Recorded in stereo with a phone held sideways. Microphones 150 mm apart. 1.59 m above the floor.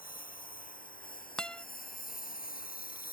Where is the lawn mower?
65° left (ahead or behind); by 3.1 s 70° left (ahead or behind).